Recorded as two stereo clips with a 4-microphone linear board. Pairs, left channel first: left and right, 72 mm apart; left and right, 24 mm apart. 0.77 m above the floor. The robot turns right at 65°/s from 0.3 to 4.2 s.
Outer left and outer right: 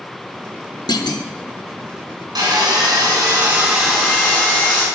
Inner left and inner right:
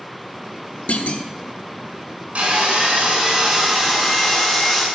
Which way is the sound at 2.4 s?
100° right.